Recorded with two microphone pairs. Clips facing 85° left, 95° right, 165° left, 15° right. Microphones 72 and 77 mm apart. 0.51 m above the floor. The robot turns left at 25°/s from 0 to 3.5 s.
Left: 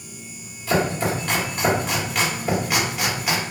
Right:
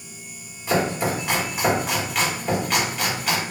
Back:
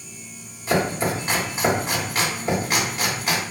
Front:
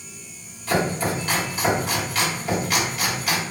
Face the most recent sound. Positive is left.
turn(degrees=145)